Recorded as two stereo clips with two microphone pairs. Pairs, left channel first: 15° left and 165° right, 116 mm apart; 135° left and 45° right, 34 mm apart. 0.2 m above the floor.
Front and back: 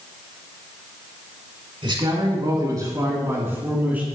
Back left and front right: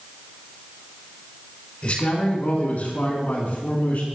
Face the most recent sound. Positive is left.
turn(degrees=120)